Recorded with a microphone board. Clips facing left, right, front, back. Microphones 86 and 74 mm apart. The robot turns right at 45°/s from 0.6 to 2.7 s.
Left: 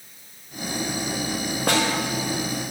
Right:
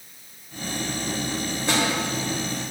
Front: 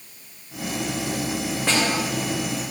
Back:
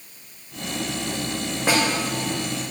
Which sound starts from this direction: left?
A snare drum, at 1.7 s.